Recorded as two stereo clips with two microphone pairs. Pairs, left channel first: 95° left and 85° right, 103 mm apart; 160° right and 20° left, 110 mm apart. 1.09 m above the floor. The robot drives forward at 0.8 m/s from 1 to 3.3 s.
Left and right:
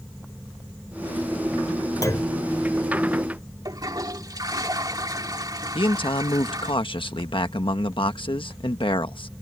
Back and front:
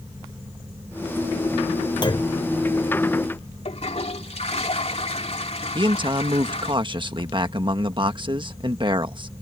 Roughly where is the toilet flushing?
Behind right.